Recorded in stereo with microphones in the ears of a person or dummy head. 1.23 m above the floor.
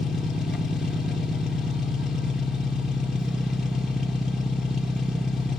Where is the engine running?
5° right (ahead or behind), 1.4 m.